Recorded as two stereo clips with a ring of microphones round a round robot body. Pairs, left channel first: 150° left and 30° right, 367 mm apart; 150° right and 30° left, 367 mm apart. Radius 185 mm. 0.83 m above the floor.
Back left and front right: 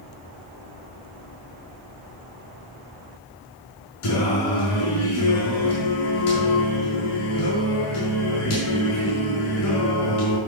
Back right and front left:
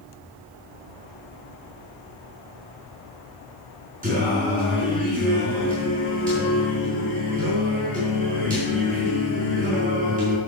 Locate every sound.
4.0 s singing: 100° left, 5.5 m